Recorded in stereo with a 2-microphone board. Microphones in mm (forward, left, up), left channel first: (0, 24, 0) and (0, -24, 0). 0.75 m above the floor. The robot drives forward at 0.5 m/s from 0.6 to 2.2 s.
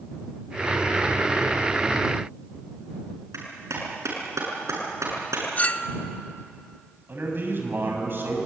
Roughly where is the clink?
Left.